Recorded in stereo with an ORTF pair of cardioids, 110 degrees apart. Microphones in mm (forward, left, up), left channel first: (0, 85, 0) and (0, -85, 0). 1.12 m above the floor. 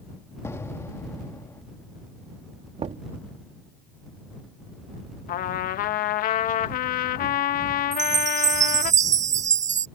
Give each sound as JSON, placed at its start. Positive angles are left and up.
{"t": 0.4, "sound": "an explosion", "azimuth_deg": 15}
{"t": 2.8, "sound": "knocking", "azimuth_deg": -40}
{"t": 5.3, "sound": "a trumpet", "azimuth_deg": 60}
{"t": 7.9, "sound": "a chime", "azimuth_deg": -45}